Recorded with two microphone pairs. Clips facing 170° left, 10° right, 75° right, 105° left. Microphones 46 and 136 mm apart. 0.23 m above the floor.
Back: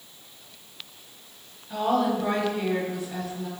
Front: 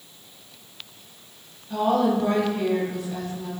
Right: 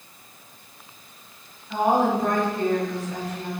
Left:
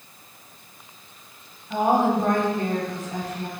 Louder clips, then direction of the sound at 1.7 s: Front 3 dB, left 1 dB; 105° left.